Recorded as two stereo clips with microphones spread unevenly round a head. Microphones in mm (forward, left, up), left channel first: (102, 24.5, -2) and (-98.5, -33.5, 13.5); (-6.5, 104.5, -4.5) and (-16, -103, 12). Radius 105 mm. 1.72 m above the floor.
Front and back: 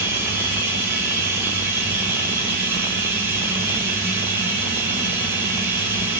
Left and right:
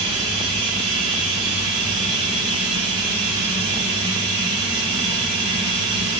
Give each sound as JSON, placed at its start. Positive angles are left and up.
{"t": 0.0, "sound": "running water", "azimuth_deg": -85, "distance_m": 6.0}